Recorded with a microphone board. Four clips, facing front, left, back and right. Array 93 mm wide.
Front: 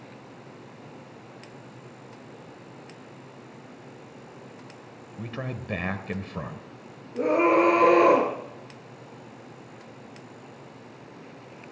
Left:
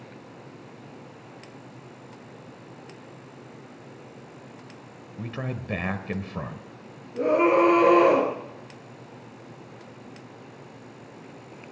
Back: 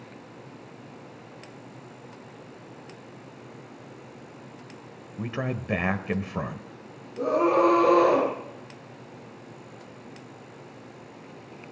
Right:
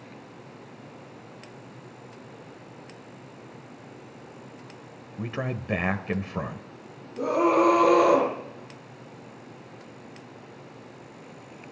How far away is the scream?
About 6.5 m.